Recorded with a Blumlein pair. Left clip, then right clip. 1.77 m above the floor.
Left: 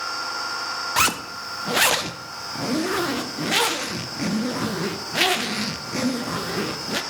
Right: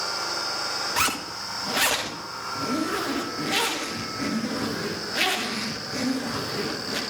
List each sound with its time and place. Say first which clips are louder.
1.0 s a zipper: left 6 dB; 15° left, 0.8 m